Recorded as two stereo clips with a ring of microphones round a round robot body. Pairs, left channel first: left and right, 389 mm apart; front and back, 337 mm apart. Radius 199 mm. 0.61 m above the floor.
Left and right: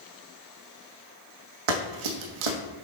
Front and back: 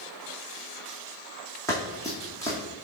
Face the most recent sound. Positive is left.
turn(degrees=-80)